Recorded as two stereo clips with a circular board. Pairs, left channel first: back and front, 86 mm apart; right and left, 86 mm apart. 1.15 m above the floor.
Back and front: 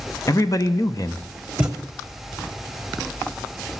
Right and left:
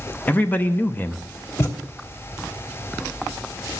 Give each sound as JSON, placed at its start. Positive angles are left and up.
{"t": 0.3, "sound": "a man speaking", "azimuth_deg": -155, "distance_m": 0.8}
{"t": 1.6, "sound": "a thud", "azimuth_deg": -70, "distance_m": 1.1}